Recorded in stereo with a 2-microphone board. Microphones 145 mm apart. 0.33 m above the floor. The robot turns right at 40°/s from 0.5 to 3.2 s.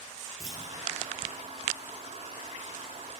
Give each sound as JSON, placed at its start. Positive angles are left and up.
{"t": 0.4, "sound": "a clunk", "side_deg": -25, "distance_m": 2.5}